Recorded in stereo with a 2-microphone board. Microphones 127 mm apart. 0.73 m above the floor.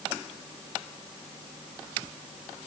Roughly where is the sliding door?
No sliding door in this recording.